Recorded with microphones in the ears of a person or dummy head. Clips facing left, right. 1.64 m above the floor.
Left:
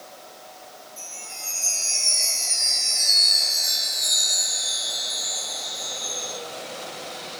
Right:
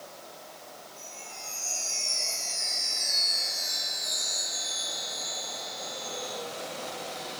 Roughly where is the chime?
Left.